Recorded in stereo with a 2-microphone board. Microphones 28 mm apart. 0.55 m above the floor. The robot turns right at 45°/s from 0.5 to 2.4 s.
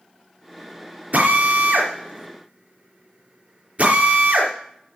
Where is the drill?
70° right (ahead or behind), 3.5 m; by 4.5 s 50° right (ahead or behind), 3.5 m.